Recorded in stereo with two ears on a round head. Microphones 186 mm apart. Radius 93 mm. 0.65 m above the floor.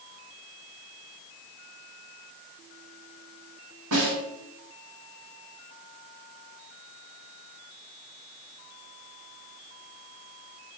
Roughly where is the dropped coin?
No dropped coin in this recording.